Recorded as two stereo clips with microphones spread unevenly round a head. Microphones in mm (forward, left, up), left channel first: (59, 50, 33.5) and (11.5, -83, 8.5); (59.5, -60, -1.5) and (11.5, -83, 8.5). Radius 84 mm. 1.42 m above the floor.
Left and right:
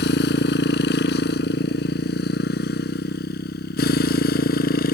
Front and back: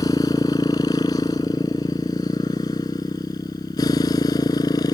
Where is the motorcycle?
85° left; by 5.0 s 60° left.